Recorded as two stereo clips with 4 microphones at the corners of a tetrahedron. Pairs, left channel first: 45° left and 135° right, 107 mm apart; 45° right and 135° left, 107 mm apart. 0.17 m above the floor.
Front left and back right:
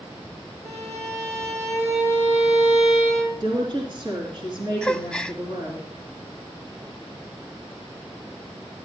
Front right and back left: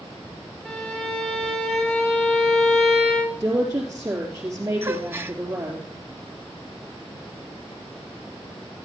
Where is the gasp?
115° left, 0.5 m.